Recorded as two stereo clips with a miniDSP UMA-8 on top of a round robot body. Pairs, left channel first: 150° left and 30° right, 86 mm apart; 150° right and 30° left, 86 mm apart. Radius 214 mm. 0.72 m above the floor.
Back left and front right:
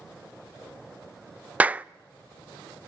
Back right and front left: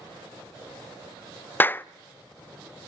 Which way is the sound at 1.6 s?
95° right.